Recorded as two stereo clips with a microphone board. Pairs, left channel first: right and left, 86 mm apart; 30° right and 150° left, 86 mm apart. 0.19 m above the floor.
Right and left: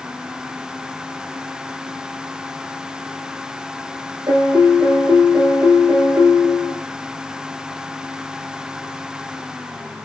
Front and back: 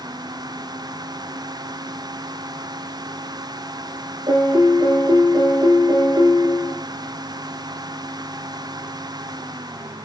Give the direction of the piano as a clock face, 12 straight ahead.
8 o'clock.